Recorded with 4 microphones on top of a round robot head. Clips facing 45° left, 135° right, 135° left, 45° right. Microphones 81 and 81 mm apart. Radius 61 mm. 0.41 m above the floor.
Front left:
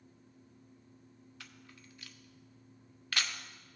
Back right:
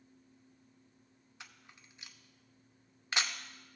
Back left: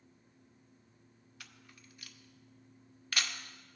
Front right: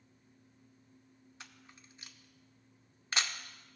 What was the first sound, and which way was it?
A camera shutter, 85° right.